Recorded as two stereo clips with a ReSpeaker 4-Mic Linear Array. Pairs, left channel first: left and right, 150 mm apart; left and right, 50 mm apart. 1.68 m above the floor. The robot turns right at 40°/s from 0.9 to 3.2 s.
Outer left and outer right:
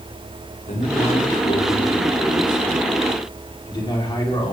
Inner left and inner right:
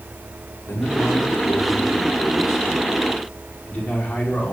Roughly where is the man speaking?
Ahead left.